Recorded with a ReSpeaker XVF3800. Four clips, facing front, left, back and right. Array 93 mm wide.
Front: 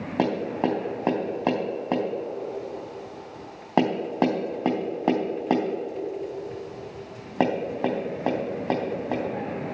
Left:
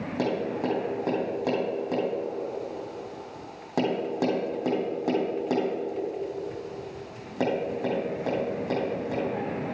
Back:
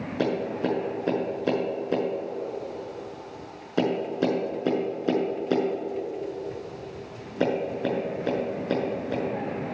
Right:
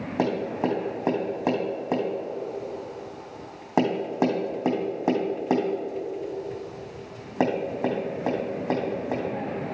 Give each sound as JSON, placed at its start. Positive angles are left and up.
{"t": 0.2, "sound": "tapping", "azimuth_deg": -20, "distance_m": 3.0}